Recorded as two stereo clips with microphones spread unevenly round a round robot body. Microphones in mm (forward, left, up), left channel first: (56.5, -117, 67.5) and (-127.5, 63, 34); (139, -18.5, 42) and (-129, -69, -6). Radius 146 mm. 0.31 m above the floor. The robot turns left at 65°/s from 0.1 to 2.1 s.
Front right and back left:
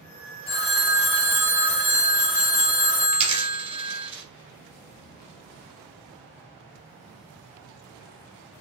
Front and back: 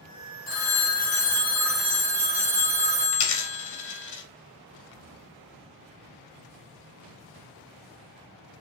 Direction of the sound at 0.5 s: Straight ahead.